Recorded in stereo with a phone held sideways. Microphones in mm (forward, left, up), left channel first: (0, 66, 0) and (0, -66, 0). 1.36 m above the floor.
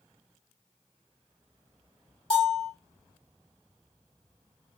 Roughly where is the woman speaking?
I don't hear a woman speaking.